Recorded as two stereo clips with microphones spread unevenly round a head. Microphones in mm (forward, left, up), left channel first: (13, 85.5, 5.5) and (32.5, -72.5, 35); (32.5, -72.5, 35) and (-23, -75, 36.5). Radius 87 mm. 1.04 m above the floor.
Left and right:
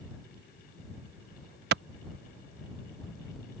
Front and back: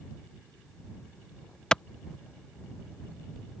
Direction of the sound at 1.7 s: 70° right.